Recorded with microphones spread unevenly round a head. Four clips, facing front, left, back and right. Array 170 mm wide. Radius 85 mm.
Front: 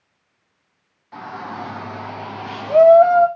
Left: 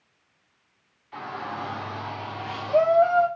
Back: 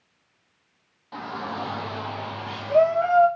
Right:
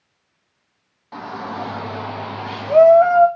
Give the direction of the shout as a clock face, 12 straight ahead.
3 o'clock.